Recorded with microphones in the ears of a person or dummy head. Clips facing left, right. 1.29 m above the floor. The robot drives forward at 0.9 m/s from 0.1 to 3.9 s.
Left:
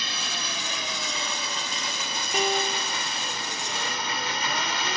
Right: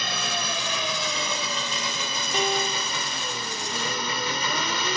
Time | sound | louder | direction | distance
0.0 | an engine running | right 5 dB | 50° right (ahead or behind) | ?
2.3 | a piano | even | 5° left (ahead or behind) | ?